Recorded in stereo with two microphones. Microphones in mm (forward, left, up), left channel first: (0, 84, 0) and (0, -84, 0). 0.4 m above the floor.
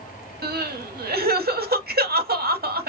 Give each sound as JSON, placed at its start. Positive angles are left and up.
{"t": 0.4, "sound": "crying", "side_deg": -65, "distance_m": 0.7}